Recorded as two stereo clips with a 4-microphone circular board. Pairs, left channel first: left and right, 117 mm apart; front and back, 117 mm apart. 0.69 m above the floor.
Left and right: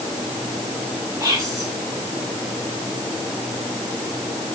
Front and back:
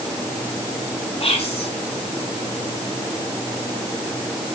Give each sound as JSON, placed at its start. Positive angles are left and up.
{"t": 1.2, "sound": "whispering", "azimuth_deg": -30, "distance_m": 5.0}